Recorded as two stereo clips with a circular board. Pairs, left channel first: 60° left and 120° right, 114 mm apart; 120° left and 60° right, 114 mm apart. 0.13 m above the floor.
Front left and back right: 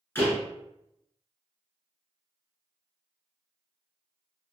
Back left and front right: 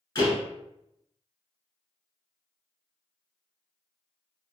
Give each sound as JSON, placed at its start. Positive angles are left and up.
{"t": 0.1, "sound": "a door slam", "azimuth_deg": 115, "distance_m": 1.4}